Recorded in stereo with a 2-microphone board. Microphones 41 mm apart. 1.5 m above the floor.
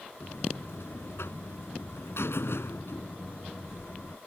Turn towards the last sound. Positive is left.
turn(degrees=75)  # may be behind; listen again after turning